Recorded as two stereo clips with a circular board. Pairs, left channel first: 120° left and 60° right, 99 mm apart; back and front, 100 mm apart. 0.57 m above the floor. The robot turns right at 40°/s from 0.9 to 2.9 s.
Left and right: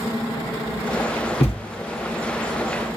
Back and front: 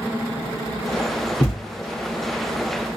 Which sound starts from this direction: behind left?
A thud, at 1.4 s.